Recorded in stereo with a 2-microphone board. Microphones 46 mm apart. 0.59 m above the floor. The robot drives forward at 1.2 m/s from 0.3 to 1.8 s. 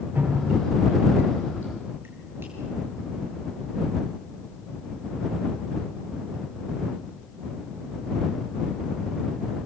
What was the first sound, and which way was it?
Dripping, 40° right (ahead or behind).